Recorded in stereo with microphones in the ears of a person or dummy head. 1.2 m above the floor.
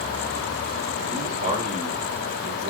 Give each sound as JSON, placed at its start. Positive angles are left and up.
{"t": 1.1, "sound": "a man speaking", "side_deg": -45, "distance_m": 3.0}